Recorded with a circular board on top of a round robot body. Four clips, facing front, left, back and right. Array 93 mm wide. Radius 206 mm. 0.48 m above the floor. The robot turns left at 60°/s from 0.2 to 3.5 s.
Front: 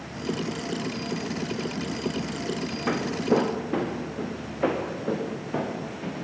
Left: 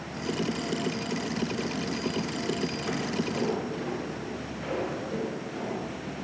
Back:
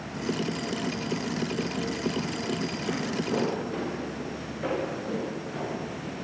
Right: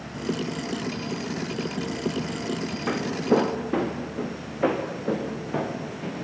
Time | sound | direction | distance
2.9 | footsteps | 30° right | 3 m